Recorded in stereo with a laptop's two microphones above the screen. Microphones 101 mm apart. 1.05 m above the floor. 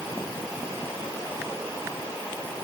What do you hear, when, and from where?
Only background noise.